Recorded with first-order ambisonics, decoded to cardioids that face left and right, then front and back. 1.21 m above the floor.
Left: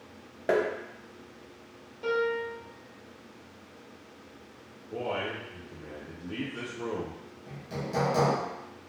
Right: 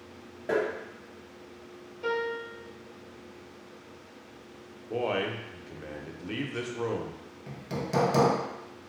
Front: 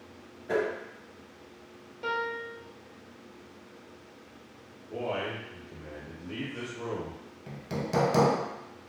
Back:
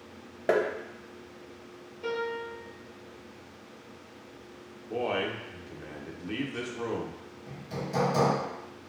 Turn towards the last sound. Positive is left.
turn(degrees=-40)